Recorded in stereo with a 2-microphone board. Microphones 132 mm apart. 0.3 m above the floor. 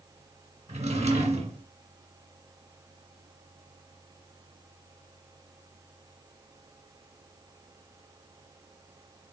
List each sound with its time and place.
0.7 s a drawer: 60° right (ahead or behind), 1.9 m